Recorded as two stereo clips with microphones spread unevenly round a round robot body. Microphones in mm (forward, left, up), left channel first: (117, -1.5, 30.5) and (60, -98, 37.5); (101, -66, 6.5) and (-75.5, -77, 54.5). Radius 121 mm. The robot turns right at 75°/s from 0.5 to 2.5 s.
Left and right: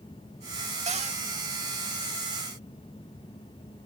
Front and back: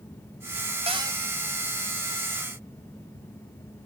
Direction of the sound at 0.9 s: 115° right.